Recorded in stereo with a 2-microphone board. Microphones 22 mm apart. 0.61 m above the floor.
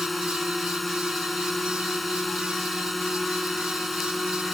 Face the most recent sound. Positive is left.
turn(degrees=0)  # may be behind; listen again after turning